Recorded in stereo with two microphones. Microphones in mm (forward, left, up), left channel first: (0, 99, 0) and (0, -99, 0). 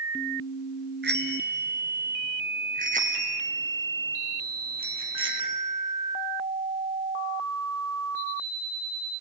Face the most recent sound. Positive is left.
turn(degrees=-25)  # may be behind; listen again after turning